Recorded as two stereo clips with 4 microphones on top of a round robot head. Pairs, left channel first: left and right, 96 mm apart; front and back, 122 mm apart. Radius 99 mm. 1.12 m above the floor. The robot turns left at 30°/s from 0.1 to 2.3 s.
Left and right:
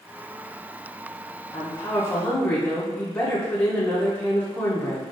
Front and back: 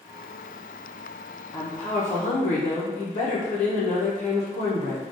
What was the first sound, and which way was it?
A woman speaking, 50° left.